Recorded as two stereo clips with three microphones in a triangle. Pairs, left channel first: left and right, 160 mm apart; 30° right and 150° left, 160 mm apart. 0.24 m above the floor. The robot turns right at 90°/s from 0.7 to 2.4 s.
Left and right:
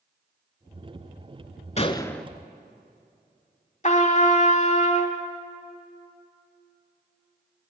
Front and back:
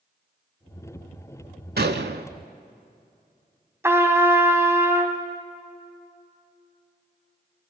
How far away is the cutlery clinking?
I don't hear cutlery clinking.